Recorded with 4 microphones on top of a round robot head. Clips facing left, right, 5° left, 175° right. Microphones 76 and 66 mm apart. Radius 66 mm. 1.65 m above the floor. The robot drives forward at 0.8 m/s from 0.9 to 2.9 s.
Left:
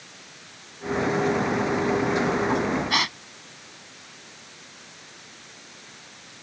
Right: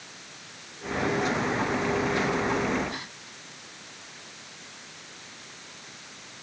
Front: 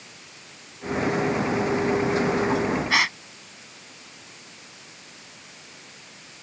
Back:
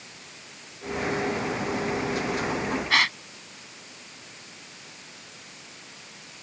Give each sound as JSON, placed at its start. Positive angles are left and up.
{"t": 2.9, "sound": "a gasp", "azimuth_deg": 90}